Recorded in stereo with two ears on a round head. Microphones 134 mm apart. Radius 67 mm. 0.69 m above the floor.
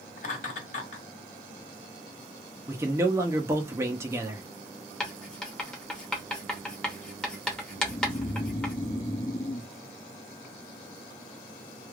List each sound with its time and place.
0.2 s laughter: 60° left (ahead or behind), 1.6 m
2.7 s a man speaking: 20° right (ahead or behind), 0.6 m
5.0 s writing: 5° left (ahead or behind), 0.9 m
7.8 s snoring: 35° left (ahead or behind), 1.6 m